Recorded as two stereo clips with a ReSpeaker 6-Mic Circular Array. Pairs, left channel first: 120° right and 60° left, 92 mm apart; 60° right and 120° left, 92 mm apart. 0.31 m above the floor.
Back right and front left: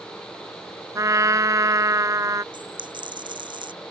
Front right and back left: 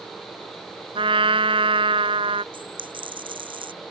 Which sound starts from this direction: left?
A dropped coin, at 2.5 s.